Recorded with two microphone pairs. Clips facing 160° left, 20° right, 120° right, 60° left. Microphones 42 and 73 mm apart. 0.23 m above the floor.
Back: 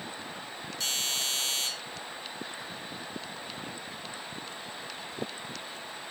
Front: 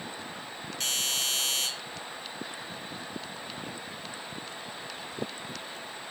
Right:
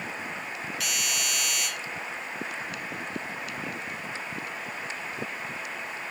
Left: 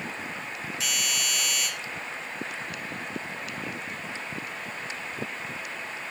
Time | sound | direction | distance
0.8 | a doorbell | 5° left | 5.5 m